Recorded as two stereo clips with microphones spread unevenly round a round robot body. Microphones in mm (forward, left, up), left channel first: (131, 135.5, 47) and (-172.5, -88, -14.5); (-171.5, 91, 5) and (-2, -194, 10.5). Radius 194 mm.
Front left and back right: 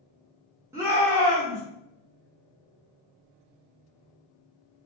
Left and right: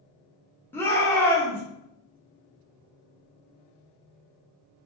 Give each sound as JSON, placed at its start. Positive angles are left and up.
{"t": 0.7, "sound": "a shout", "azimuth_deg": -175, "distance_m": 1.0}